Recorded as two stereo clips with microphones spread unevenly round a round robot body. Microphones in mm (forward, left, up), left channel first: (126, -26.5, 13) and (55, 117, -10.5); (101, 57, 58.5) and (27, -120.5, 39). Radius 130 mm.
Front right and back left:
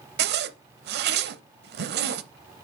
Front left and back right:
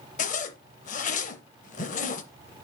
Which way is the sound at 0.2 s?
125° left.